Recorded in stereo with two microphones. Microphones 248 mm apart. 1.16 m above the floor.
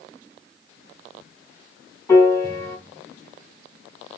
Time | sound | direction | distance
2.1 | a piano | 10° left (ahead or behind) | 3.5 m